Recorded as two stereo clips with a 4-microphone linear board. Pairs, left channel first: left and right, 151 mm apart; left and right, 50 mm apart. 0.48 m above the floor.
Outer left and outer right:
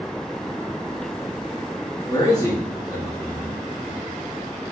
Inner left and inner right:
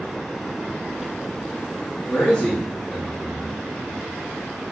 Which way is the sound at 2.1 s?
20° left (ahead or behind).